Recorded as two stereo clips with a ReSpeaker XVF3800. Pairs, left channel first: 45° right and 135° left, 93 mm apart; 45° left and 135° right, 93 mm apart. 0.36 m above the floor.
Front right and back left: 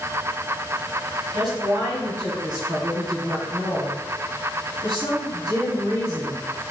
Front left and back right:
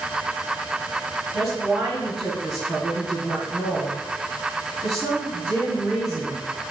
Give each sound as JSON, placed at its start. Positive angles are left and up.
{"t": 1.3, "sound": "a woman speaking", "azimuth_deg": 145, "distance_m": 1.5}